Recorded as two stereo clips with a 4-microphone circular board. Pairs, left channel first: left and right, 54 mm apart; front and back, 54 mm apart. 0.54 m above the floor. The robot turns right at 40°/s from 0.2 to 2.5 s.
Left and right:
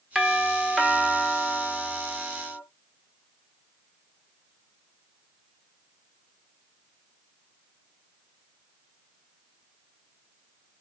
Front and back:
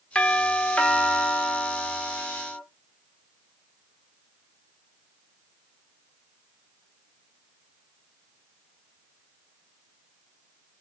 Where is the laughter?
No laughter in this recording.